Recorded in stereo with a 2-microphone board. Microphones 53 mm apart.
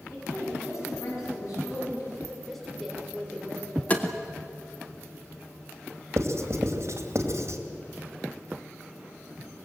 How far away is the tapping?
About 1.9 m.